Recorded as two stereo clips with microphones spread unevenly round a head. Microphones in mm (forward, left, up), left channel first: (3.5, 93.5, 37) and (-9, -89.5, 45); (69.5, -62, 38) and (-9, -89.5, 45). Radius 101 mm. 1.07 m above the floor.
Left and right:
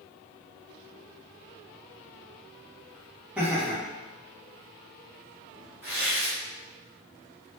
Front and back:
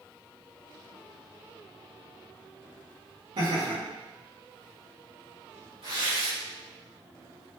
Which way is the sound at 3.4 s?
Straight behind.